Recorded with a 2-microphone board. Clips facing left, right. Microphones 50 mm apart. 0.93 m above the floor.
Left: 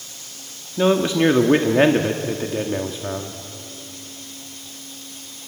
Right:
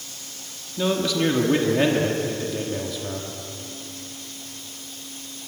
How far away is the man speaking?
About 1.5 m.